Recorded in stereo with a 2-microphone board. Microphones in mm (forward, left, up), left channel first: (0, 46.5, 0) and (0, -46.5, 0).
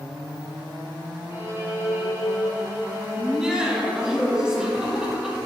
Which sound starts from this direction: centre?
Laughter, at 3.2 s.